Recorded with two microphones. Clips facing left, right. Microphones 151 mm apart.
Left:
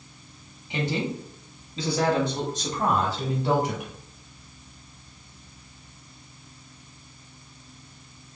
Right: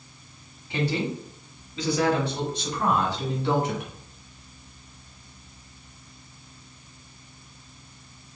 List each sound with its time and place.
0.7 s a woman speaking: 20° left (ahead or behind), 1.5 m; by 3.9 s 45° left (ahead or behind), 1.6 m